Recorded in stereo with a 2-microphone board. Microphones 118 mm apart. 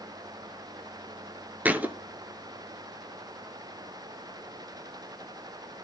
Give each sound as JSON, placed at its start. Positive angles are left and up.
{"t": 1.6, "sound": "a thud", "side_deg": -15, "distance_m": 0.8}